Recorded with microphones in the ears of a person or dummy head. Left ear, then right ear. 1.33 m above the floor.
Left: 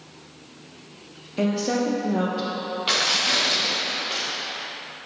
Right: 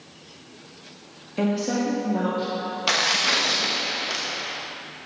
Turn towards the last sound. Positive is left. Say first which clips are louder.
# even
turn(degrees=-25)  # may be behind; listen again after turning